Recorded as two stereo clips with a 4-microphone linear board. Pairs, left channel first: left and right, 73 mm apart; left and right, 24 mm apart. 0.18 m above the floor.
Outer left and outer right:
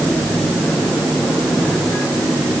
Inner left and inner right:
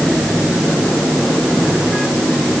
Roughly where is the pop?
No pop in this recording.